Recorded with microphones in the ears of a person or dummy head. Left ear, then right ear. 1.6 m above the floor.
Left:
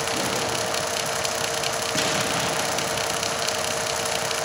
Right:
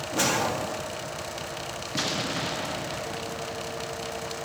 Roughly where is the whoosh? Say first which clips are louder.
Left 1 dB; right.